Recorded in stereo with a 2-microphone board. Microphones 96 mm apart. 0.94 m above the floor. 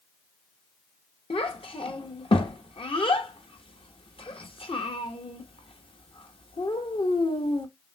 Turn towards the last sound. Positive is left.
turn(degrees=65)  # may be behind; listen again after turning